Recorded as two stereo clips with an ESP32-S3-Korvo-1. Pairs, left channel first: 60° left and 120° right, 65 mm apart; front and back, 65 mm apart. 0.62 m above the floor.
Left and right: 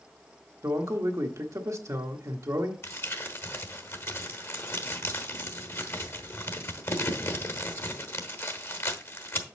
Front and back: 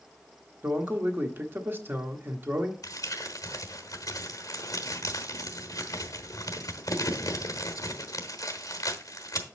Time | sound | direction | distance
0.6 | a man speaking | 130° right | 1.2 m
2.8 | crumpling | 20° left | 1.1 m